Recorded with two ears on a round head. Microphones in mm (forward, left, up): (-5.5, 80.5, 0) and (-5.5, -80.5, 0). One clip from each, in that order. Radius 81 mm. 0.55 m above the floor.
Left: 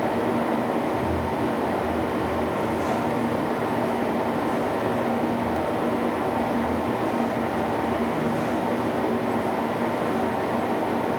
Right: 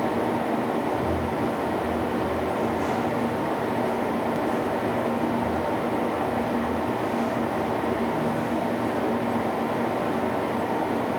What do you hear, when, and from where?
Only background noise.